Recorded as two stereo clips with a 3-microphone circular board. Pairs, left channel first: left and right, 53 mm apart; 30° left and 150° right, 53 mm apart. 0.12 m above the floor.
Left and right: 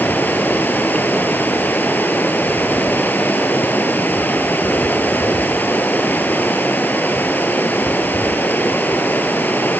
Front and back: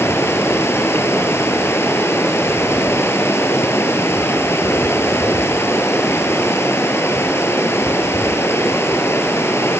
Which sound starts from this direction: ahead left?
Running water, at 0.0 s.